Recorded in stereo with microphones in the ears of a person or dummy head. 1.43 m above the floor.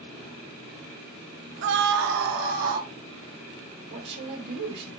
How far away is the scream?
About 0.6 m.